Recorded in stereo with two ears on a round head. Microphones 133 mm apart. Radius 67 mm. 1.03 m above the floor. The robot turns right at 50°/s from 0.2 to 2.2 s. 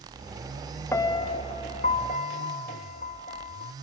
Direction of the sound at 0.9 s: 25° left.